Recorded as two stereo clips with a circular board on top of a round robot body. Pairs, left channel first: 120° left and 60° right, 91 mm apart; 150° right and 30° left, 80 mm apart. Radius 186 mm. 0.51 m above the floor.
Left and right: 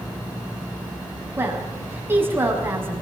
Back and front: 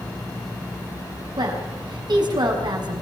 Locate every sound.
1.4 s a woman speaking: 5° left, 5.5 m